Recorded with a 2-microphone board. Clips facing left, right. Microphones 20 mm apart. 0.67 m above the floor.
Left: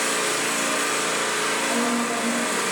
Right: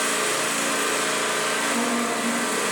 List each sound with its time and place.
0.0 s an engine running: 15° left (ahead or behind), 1.0 m
1.7 s a woman speaking: 20° left (ahead or behind), 0.6 m